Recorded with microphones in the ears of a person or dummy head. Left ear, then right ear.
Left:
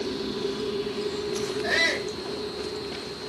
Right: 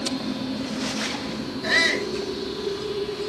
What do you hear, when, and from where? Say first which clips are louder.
1.6 s a shout: right 4 dB; 10° right (ahead or behind), 4.5 m